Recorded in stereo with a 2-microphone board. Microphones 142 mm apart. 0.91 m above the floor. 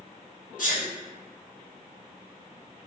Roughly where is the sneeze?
Left.